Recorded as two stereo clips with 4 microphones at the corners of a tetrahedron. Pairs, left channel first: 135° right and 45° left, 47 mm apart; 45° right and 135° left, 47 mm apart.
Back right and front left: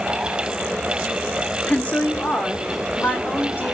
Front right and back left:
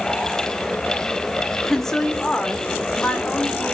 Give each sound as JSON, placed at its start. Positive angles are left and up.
{"t": 1.7, "sound": "a woman speaking", "azimuth_deg": -125, "distance_m": 1.2}